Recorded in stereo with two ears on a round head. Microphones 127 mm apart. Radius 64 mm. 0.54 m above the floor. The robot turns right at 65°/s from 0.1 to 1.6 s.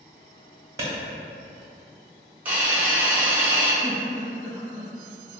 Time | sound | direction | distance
0.8 | a clap | 20° right (ahead or behind) | 1.0 m
2.5 | a hiss | 15° right (ahead or behind) | 1.0 m
3.8 | a giggle | 10° left (ahead or behind) | 0.9 m